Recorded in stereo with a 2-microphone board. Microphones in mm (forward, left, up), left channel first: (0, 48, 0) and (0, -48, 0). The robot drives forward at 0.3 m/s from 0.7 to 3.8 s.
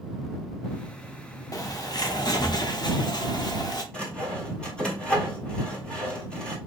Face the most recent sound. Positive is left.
turn(degrees=10)  # may be behind; listen again after turning